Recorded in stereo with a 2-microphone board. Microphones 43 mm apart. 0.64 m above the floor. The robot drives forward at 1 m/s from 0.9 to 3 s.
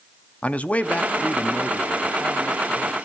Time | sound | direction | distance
0.4 | a man speaking | 35° left (ahead or behind) | 0.6 m